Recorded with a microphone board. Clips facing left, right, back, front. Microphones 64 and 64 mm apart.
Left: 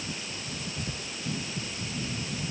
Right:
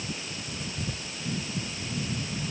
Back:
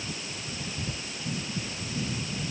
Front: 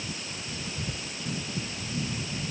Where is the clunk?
I don't hear a clunk.